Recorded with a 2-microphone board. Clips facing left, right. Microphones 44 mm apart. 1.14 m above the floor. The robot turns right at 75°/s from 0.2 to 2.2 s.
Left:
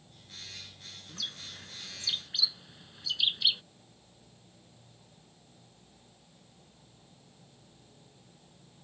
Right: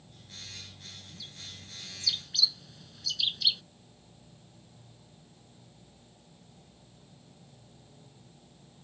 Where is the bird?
75° left (ahead or behind); by 3.6 s 25° left (ahead or behind).